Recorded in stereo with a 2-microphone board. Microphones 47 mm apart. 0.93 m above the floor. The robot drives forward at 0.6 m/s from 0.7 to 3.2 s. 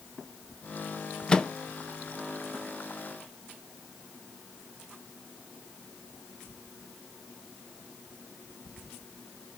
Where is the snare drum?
I don't hear a snare drum.